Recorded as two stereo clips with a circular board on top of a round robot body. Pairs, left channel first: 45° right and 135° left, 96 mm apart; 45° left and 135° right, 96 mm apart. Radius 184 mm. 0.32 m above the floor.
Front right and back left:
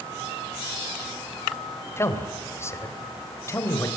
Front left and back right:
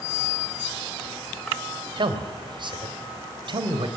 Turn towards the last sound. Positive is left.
turn(degrees=-105)